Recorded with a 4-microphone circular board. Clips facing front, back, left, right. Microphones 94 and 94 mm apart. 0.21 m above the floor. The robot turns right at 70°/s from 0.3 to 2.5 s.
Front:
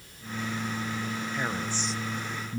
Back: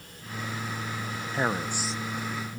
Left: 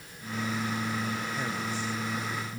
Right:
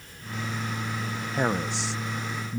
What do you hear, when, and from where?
1.3 s a man speaking: 130° right; by 2.6 s 50° right